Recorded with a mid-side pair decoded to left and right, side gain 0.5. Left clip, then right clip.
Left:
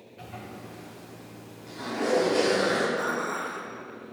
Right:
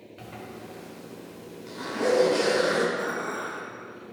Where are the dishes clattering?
15° left, 1.7 m.